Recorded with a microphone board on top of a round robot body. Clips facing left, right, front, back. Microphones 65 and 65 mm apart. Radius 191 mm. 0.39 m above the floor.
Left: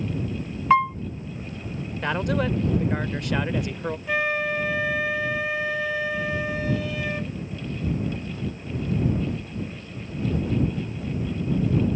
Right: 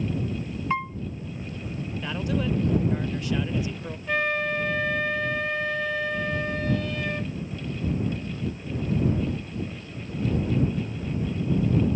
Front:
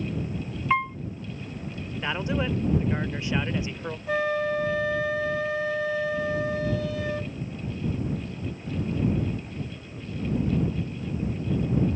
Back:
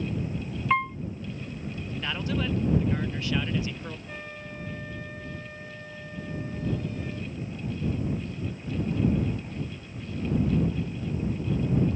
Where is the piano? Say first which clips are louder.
Left 10 dB, front 1 dB; 90° left.